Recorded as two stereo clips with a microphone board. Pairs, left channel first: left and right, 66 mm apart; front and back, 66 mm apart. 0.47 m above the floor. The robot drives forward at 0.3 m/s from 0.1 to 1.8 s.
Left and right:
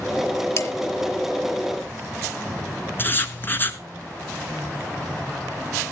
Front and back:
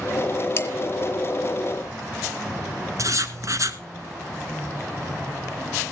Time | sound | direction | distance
0.6 | dishes clattering | 55° left | 3 m
3.0 | writing | 145° left | 1.5 m